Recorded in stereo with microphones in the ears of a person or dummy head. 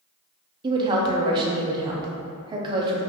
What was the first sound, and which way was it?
A woman speaking, 25° right (ahead or behind).